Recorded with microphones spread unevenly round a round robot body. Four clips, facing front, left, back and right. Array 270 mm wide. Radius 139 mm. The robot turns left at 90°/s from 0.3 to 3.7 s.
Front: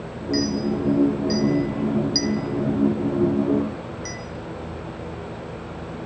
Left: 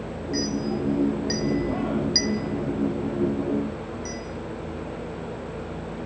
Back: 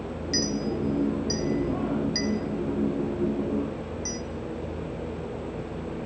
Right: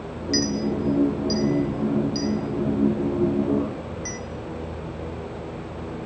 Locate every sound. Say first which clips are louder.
0.3 s a clink: right 3 dB, front 6 dB; 120° right, 0.9 m; by 4.2 s 65° right, 0.9 m